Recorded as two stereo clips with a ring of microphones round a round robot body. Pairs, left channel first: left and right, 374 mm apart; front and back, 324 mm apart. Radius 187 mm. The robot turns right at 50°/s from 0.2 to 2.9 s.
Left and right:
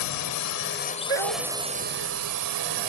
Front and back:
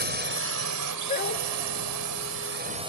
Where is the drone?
125° left; by 2.9 s 100° right.